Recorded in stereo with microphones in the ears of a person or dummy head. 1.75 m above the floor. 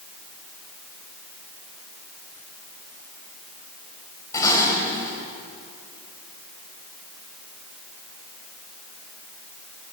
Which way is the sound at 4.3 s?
20° left (ahead or behind).